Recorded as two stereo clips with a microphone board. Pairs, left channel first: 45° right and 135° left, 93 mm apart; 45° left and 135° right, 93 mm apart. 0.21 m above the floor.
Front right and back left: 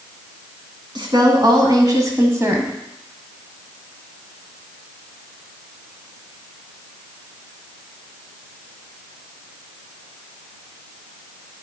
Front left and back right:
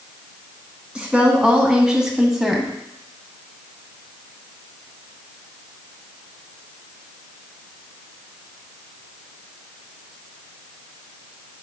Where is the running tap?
No running tap in this recording.